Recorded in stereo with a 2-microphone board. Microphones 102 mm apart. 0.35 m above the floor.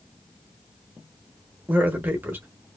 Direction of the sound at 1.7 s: 20° right (ahead or behind).